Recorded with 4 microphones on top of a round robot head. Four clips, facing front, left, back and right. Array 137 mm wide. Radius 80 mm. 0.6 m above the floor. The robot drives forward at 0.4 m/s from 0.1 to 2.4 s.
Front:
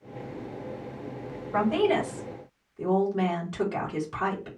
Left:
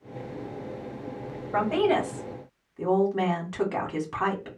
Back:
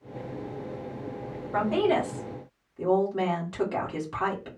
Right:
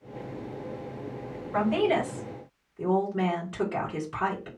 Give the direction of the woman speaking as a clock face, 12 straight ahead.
8 o'clock.